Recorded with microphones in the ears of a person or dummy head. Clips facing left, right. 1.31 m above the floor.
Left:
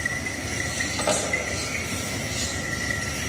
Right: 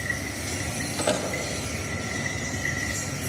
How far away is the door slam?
About 1.9 m.